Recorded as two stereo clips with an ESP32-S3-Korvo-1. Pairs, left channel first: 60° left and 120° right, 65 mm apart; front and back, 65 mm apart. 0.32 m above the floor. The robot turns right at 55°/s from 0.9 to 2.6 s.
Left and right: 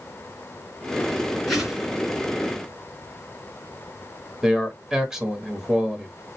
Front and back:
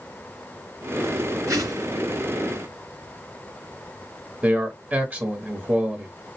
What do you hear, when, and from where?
1.5 s a whoosh: 145° left, 2.5 m; by 1.9 s 165° left, 2.5 m
4.4 s a man speaking: 165° left, 0.9 m